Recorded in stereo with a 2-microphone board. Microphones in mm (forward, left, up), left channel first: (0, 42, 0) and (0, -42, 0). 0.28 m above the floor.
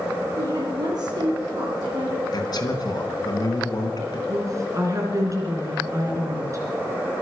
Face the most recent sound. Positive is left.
turn(degrees=-40)  # may be behind; listen again after turning